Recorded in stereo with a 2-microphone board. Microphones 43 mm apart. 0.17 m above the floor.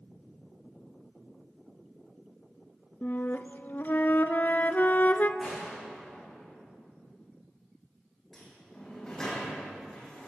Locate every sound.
3.0 s a flute: 45° left (ahead or behind), 0.5 m
5.4 s a gunshot: 10° left (ahead or behind), 6.5 m
8.3 s a sliding door: 15° left (ahead or behind), 3.5 m